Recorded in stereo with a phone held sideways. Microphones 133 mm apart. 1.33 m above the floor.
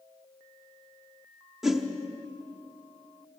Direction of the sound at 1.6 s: 5° right (ahead or behind).